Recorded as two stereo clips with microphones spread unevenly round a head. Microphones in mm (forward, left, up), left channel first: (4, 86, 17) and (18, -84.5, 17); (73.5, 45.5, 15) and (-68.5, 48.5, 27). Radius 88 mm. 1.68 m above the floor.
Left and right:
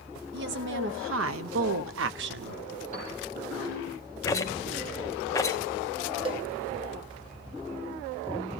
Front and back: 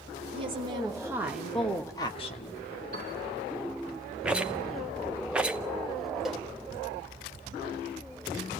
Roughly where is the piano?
Behind right.